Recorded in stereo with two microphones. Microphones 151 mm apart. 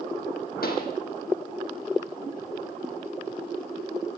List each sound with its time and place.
0.6 s a pop: 80° left, 5 m